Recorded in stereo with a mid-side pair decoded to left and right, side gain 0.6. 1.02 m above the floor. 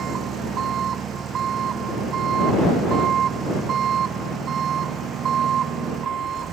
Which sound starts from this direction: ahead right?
An engine running, at 0.0 s.